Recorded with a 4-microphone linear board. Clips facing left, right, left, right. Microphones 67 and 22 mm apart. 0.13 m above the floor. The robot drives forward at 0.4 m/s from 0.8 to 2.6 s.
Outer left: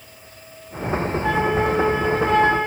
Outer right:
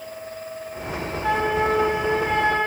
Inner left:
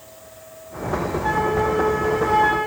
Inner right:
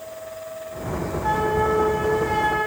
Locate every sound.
1.2 s a flute: 5° right (ahead or behind), 5 m